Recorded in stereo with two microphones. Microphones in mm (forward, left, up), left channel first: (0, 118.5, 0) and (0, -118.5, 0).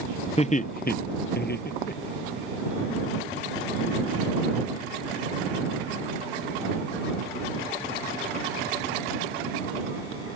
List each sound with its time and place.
0.4 s laughter: 30° left (ahead or behind); by 2.4 s 40° left (ahead or behind)